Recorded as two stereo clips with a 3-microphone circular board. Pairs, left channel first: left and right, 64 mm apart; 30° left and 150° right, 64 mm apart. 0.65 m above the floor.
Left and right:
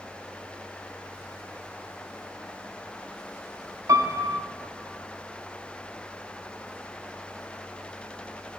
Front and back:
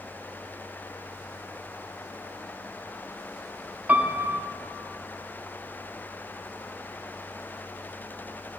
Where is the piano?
90° right, 0.8 m.